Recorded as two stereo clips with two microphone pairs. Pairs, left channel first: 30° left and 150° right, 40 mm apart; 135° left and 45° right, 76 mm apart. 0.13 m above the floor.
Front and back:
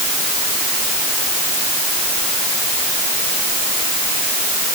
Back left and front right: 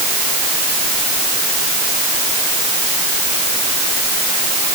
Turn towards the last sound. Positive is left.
No sound to turn to.